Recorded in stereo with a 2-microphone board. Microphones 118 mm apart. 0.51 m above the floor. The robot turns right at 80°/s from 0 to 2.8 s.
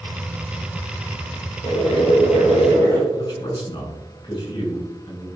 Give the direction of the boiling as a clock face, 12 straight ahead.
10 o'clock.